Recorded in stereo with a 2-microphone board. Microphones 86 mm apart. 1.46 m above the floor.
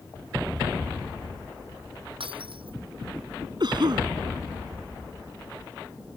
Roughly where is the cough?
Right.